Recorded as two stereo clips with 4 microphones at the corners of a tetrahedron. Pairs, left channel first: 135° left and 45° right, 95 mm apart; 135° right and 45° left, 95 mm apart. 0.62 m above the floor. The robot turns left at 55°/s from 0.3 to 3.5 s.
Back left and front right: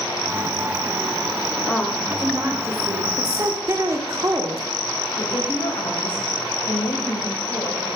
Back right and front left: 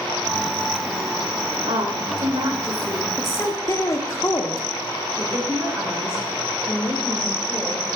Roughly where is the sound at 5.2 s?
Left.